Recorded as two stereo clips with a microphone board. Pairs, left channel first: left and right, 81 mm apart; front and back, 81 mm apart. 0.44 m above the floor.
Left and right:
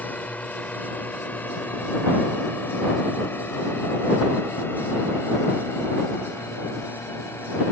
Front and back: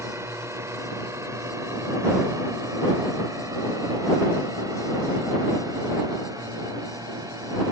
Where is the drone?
150° left; by 7.7 s 145° left.